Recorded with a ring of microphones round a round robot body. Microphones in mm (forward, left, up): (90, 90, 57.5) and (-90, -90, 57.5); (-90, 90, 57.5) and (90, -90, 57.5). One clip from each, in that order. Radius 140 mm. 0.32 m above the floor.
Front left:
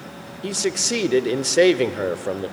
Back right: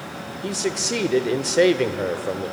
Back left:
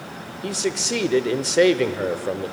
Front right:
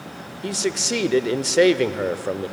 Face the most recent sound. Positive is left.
turn(degrees=20)